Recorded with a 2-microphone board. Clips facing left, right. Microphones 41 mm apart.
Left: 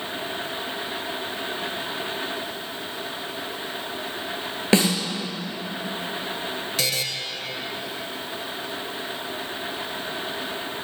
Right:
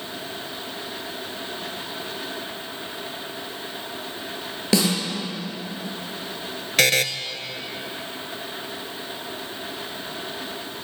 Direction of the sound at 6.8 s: 70° right (ahead or behind).